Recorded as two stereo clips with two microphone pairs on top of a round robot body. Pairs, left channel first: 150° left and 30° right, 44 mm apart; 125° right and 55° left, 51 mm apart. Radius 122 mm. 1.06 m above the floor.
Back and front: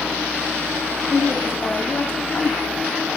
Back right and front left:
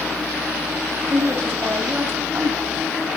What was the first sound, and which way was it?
A woman speaking, 90° left.